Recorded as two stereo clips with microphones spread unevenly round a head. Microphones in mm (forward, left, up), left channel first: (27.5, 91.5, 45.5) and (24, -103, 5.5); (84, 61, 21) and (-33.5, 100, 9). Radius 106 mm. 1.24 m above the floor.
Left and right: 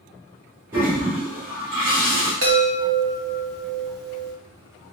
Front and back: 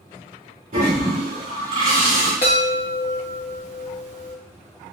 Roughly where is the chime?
Ahead right.